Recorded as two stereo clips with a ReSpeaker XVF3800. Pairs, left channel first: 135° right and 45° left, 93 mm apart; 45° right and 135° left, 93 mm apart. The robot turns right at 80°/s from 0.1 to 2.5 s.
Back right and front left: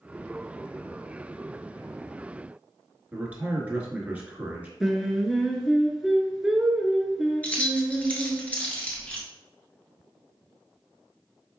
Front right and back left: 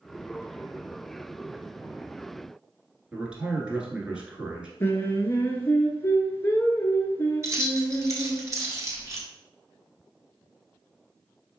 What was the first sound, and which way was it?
A man speaking, 80° left.